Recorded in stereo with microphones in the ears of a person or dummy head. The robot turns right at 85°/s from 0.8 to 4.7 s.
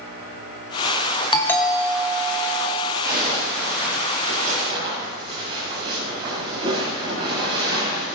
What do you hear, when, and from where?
1.3 s a doorbell: 150° left, 1.2 m; by 2.9 s 70° right, 1.2 m
3.0 s a zipper: 165° right, 7 m; by 8.1 s 25° right, 7 m